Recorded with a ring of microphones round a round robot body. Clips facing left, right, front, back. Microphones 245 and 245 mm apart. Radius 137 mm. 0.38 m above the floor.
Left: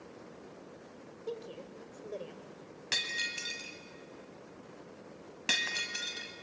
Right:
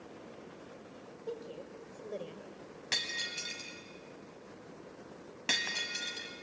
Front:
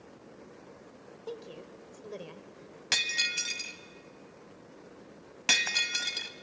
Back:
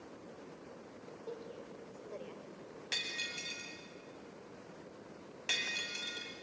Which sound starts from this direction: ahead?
Breaking glass, at 2.9 s.